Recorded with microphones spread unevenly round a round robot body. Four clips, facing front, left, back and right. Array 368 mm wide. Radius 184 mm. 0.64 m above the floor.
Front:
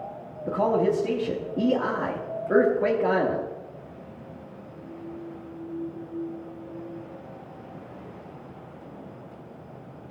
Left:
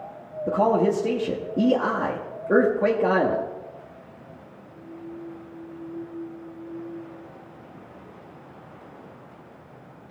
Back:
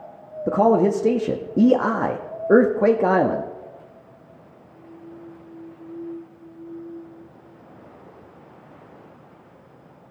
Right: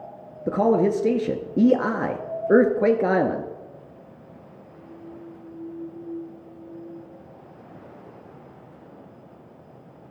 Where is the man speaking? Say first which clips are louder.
Right 1 dB, back 6 dB; 165° right, 0.7 m.